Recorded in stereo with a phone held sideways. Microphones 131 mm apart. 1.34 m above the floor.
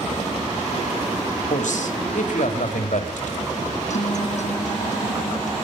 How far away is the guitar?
About 1.1 m.